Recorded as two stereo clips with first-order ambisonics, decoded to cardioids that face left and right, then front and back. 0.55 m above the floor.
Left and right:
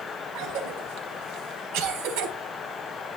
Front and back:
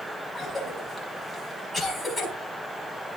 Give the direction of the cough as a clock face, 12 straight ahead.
3 o'clock.